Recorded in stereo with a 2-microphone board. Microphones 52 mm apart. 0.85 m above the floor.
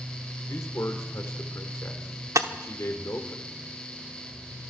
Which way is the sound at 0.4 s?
65° left (ahead or behind).